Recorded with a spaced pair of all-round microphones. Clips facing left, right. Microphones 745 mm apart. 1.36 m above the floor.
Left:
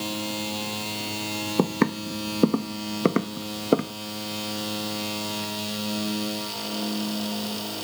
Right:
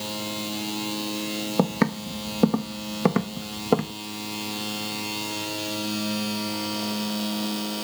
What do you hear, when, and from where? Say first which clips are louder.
1.6 s footsteps: left 1 dB; 20° right (ahead or behind); by 3.9 s 30° right (ahead or behind)